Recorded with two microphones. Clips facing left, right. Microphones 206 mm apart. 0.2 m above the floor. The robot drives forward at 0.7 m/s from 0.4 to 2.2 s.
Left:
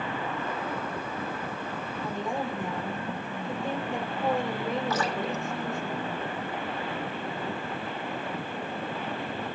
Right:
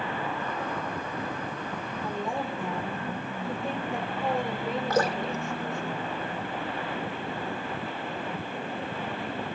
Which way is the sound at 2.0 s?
Centre (ahead or behind).